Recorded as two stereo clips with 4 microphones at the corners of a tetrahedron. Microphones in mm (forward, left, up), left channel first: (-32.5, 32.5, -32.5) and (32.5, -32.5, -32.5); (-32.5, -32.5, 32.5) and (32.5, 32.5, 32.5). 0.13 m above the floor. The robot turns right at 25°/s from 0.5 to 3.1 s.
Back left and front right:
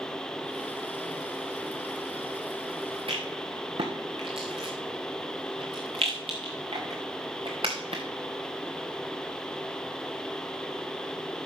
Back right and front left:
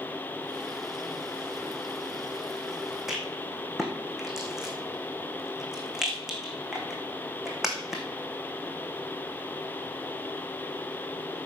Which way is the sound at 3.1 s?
40° right.